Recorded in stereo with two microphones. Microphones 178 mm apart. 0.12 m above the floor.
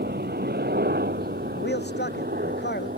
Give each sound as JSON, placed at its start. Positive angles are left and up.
{"t": 0.0, "sound": "a helicopter", "side_deg": -65}
{"t": 1.6, "sound": "a man speaking", "side_deg": 70}